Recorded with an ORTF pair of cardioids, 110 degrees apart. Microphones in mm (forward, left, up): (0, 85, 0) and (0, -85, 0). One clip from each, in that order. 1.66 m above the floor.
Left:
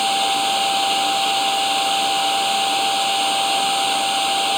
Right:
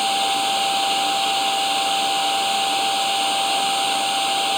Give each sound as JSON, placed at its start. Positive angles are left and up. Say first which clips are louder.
{"t": 0.0, "sound": "a machine running", "louder": "left 1 dB", "azimuth_deg": 5}